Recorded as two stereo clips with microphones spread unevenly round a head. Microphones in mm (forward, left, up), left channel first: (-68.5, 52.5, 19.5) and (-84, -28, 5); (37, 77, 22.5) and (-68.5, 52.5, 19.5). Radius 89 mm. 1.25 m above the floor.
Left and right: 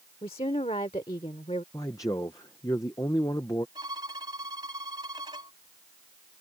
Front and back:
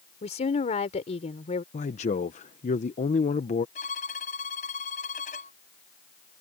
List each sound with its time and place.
0.2 s a woman speaking: 30° left
1.7 s a man speaking: 10° left
3.8 s a violin: 30° right